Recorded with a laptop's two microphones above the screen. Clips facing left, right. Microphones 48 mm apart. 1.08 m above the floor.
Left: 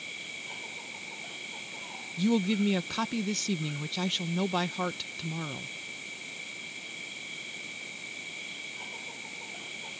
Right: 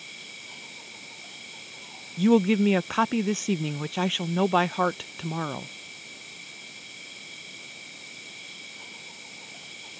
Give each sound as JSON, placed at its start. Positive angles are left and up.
{"t": 0.0, "sound": "an insect", "side_deg": 15}
{"t": 2.2, "sound": "a woman speaking", "side_deg": -35}